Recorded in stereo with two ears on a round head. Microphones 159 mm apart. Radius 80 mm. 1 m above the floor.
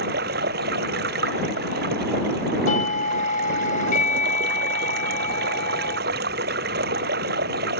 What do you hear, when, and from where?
0.0 s running water: 60° right (ahead or behind)
2.7 s a doorbell: 45° left (ahead or behind)